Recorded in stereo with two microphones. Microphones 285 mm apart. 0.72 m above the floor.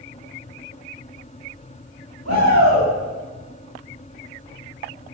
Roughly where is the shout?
Right.